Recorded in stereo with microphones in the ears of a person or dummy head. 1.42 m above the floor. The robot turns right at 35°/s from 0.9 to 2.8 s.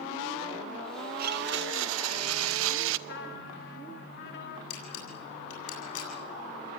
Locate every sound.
1.2 s a blender: 135° right, 0.8 m; by 3.0 s 80° right, 0.8 m
3.1 s a trumpet: 65° left (ahead or behind), 3 m
4.7 s a camera shutter: 85° left, 8 m